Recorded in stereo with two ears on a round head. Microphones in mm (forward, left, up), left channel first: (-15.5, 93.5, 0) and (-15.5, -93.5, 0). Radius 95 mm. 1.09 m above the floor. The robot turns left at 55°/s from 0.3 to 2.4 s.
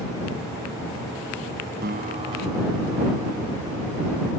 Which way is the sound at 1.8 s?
130° right.